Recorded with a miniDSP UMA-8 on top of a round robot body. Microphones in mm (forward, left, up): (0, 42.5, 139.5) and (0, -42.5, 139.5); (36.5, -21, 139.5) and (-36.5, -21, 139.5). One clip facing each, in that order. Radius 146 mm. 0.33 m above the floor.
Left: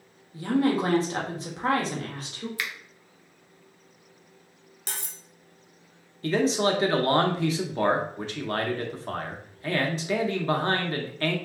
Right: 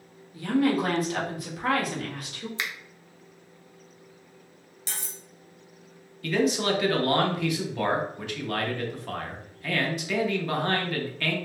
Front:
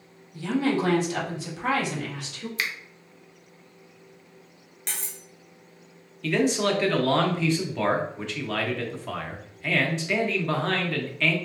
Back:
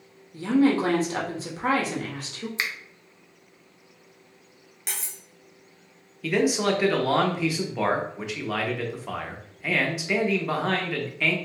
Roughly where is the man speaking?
Left.